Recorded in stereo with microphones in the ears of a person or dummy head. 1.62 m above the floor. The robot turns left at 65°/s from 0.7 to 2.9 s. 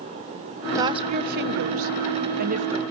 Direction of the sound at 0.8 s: 20° right (ahead or behind).